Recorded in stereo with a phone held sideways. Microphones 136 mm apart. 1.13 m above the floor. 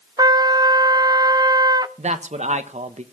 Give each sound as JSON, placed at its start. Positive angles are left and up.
{"t": 0.2, "sound": "a trumpet", "side_deg": -30, "distance_m": 0.5}
{"t": 2.0, "sound": "a man speaking", "side_deg": -60, "distance_m": 1.1}